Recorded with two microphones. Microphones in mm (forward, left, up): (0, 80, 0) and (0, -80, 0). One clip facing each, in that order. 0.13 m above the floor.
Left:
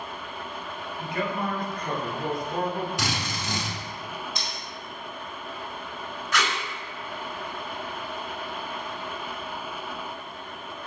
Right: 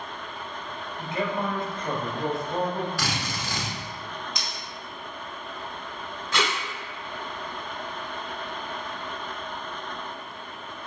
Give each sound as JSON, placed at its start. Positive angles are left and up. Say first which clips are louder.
{"t": 1.0, "sound": "a man speaking", "louder": "right 1 dB", "side_deg": -25, "distance_m": 1.5}
{"t": 3.0, "sound": "a drill", "louder": "even", "side_deg": 20, "distance_m": 1.3}
{"t": 4.3, "sound": "cutlery clinking", "louder": "left 1 dB", "side_deg": -20, "distance_m": 1.6}
{"t": 6.3, "sound": "tape being pulled", "louder": "right 1 dB", "side_deg": -30, "distance_m": 0.7}